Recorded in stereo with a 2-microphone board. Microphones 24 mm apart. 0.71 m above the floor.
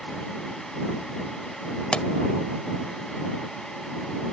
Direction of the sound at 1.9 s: 45° left (ahead or behind).